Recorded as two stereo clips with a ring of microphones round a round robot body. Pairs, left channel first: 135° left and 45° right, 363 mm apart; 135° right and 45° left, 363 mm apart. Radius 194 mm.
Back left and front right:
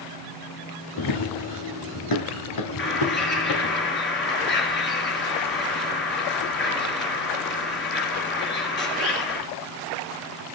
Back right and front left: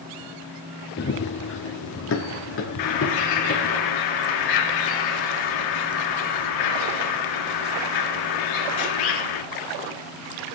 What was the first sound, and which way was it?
Running footsteps, 165° left.